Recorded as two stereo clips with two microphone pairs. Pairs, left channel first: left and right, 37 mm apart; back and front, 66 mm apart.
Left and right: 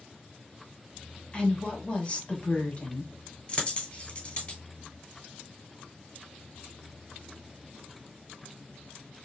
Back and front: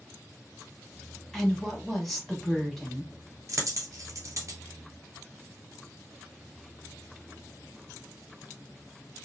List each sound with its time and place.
1.3 s a woman speaking: 90° left, 1.2 m
3.5 s a dropped coin: 35° left, 1.3 m